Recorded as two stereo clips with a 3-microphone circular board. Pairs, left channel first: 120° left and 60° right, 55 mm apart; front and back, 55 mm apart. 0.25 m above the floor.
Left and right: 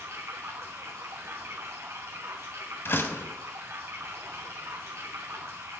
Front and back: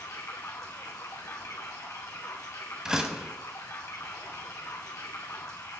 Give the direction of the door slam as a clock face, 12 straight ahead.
8 o'clock.